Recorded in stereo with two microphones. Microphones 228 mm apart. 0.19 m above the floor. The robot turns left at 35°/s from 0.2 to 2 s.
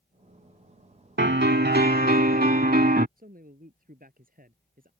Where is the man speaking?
40° right (ahead or behind).